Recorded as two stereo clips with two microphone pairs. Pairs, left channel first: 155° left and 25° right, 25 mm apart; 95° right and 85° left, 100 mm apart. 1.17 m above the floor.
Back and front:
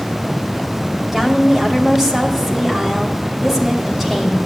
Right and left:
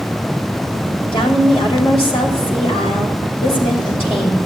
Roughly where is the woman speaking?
Right.